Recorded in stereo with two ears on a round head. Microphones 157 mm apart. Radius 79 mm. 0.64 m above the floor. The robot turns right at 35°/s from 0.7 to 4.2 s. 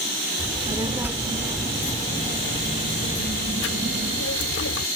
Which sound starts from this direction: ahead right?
A child speaking, at 0.4 s.